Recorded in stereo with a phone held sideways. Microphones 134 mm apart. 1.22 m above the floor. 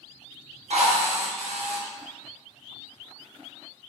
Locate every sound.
0.7 s a drill: 60° right (ahead or behind), 1.1 m